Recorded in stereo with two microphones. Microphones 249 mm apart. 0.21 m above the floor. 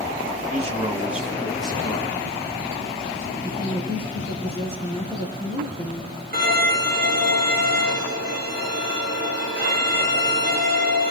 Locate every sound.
0.5 s a man speaking: 30° right (ahead or behind), 1.2 m; by 3.3 s 40° left (ahead or behind), 2.5 m
3.4 s a woman speaking: 25° right (ahead or behind), 4 m
6.3 s a violin: 35° right (ahead or behind), 7 m